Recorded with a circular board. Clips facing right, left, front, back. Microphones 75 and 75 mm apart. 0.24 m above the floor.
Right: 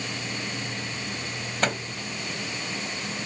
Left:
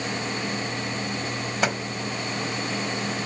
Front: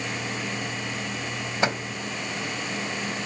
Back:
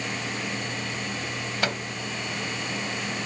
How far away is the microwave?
About 0.9 m.